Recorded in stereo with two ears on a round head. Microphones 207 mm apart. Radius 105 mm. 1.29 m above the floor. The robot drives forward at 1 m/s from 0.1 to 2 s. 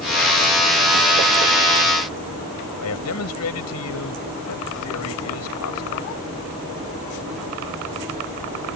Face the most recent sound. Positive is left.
turn(degrees=65)  # may be behind; listen again after turning